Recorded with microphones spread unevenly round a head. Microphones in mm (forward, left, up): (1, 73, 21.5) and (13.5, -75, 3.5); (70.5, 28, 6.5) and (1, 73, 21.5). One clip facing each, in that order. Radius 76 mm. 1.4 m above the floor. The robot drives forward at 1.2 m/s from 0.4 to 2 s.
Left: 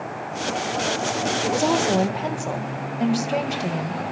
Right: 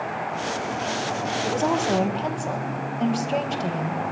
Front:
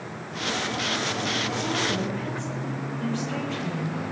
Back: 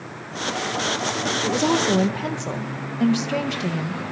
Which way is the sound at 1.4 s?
170° left.